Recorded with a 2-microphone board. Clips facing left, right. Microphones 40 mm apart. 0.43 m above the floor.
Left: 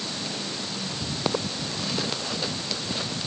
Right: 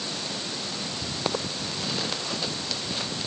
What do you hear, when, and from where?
Only background noise.